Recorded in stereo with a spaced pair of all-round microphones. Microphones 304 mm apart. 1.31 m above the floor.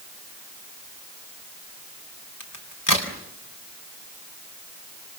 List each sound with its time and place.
2.4 s a crack: 80° left, 3.5 m